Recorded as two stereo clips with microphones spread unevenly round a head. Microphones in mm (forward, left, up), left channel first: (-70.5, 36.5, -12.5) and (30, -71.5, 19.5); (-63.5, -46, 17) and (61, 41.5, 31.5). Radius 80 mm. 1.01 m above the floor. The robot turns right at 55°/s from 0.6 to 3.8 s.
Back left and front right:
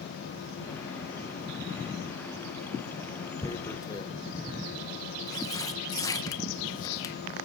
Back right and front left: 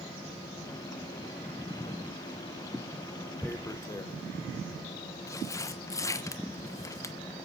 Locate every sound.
3.4 s tearing paper: 145° left, 0.9 m; by 7.2 s 165° left, 0.9 m